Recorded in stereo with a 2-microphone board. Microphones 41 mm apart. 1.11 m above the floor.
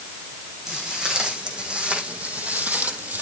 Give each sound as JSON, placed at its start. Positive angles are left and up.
{"t": 0.7, "sound": "footsteps", "side_deg": -20, "distance_m": 5.0}